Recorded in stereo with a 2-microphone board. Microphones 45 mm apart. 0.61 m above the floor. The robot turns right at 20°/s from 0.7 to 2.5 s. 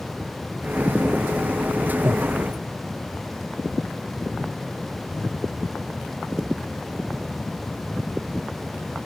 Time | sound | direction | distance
2.0 | breathing | 65° right (ahead or behind) | 1.1 m